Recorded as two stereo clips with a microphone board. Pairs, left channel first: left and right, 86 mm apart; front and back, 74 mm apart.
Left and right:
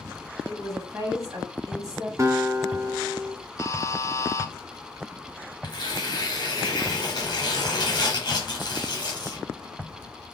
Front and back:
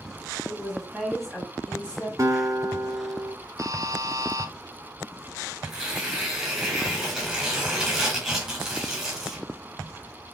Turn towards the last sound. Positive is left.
turn(degrees=95)